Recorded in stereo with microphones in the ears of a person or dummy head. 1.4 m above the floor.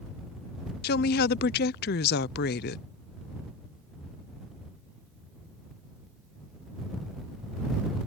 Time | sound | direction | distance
0.8 | a woman speaking | 55° left (ahead or behind) | ?